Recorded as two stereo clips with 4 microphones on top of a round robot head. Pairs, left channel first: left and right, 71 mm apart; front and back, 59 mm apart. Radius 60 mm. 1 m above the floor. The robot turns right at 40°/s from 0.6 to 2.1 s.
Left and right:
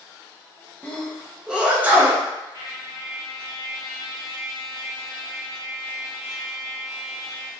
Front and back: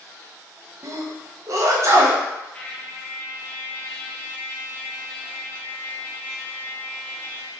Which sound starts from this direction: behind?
A sneeze, at 0.8 s.